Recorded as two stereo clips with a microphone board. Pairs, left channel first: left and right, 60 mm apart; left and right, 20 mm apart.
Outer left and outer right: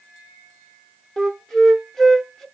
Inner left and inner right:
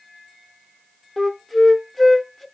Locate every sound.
1.2 s a flute: 5° left (ahead or behind), 0.7 m